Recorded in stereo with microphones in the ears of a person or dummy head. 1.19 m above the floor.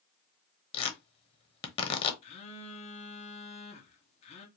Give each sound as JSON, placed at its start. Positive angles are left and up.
{"t": 0.7, "sound": "tearing paper", "side_deg": 30, "distance_m": 1.1}
{"t": 2.2, "sound": "a phone buzzing", "side_deg": 35, "distance_m": 0.9}